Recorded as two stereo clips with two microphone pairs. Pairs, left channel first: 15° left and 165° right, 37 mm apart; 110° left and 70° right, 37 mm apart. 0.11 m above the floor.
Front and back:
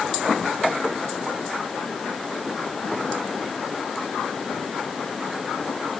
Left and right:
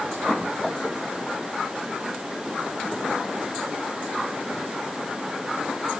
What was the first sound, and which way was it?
Only background noise.